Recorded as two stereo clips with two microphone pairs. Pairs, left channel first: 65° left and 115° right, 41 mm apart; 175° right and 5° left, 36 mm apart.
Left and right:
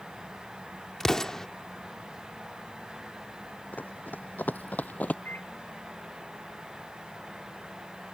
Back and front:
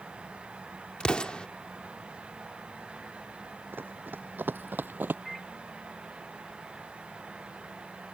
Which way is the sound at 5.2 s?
95° left.